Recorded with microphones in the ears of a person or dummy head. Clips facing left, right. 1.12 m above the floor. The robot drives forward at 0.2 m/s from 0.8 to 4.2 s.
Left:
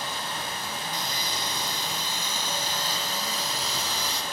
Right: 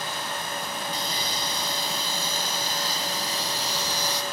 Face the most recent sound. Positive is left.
turn(degrees=-35)  # may be behind; listen again after turning